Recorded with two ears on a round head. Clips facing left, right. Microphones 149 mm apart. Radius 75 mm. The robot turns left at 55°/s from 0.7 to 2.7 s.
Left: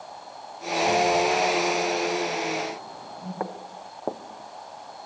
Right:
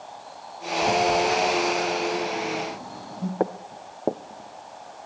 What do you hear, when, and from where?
0.8 s a phone buzzing: 15° right (ahead or behind), 6.5 m; by 3.3 s 60° right (ahead or behind), 6.5 m
3.4 s footsteps: 45° right (ahead or behind), 1.4 m; by 5.1 s 15° left (ahead or behind), 0.9 m